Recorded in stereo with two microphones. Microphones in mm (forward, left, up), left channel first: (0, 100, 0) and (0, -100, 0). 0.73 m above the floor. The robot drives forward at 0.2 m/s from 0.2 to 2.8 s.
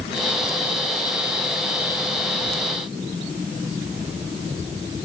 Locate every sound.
Only background noise.